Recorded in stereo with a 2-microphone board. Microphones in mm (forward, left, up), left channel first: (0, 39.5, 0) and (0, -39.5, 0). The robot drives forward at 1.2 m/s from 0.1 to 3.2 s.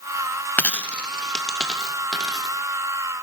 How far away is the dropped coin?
About 0.6 m.